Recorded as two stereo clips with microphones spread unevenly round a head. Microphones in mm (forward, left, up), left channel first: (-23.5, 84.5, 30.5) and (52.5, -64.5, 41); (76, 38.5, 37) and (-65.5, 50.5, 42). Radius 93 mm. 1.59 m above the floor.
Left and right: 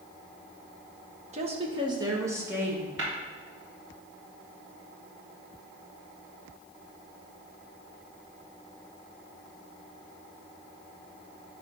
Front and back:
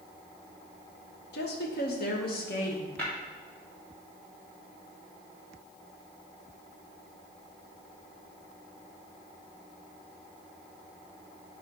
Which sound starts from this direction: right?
Tapping, at 3.0 s.